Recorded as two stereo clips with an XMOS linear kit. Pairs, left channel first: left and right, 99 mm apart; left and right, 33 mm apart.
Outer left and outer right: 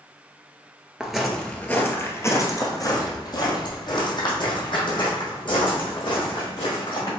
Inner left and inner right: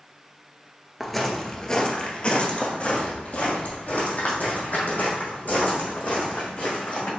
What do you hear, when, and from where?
1.0 s footsteps: 5° right (ahead or behind), 1.1 m; by 7.1 s 60° left (ahead or behind), 5 m